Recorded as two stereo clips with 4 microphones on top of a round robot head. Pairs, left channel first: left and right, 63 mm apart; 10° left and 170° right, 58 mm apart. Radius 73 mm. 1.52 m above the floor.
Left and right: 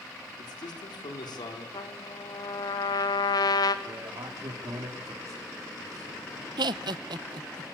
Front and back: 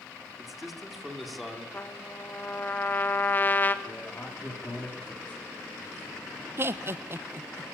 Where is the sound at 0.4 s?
105° left, 4.5 m; by 1.6 s 100° left, 6 m.